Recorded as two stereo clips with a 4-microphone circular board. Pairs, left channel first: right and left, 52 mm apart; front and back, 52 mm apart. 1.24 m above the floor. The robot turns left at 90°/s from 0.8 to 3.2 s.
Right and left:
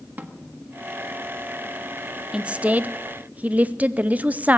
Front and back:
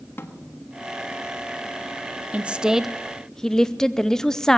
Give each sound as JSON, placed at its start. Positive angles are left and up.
{"t": 0.2, "sound": "a snare drum", "azimuth_deg": 40, "distance_m": 1.3}
{"t": 2.3, "sound": "a woman speaking", "azimuth_deg": 145, "distance_m": 0.6}